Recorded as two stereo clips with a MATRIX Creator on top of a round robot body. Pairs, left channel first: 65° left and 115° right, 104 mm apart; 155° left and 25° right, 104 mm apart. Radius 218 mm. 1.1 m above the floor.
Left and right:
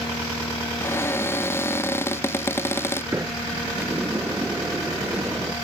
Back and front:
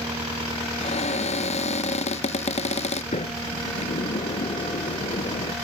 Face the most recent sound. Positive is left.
turn(degrees=175)